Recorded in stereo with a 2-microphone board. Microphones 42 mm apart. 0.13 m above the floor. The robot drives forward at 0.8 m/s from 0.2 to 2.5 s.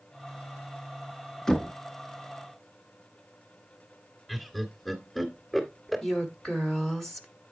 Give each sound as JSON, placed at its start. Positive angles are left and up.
{"t": 1.5, "sound": "knocking", "side_deg": 10, "distance_m": 0.9}
{"t": 4.3, "sound": "laughter", "side_deg": 5, "distance_m": 1.9}
{"t": 6.0, "sound": "a woman speaking", "side_deg": 10, "distance_m": 1.2}